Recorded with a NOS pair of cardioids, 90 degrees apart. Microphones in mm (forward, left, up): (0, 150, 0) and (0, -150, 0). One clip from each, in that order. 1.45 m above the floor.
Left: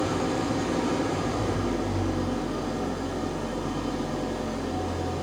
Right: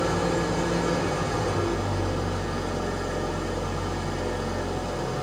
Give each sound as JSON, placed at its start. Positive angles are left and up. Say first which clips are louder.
{"t": 0.0, "sound": "an engine running", "louder": "right 2 dB", "azimuth_deg": -35, "distance_m": 5.0}